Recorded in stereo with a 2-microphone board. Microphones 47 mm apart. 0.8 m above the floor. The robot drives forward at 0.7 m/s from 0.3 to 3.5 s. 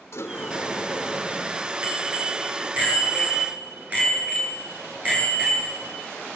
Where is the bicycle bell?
30° right (ahead or behind), 8.5 m; by 5.9 s 25° right (ahead or behind), 9.5 m.